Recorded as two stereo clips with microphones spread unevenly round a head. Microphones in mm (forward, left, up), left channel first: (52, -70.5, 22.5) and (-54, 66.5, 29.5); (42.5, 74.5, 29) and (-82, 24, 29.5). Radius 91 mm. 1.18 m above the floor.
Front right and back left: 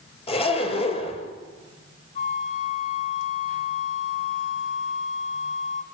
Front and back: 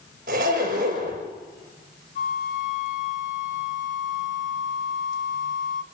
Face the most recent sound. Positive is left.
turn(degrees=-5)